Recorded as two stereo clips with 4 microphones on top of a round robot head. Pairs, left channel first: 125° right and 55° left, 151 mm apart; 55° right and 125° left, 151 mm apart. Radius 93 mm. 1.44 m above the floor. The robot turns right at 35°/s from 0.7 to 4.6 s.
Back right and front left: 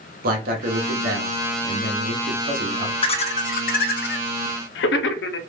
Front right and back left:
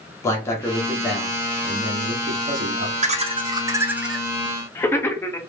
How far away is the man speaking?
About 1.0 m.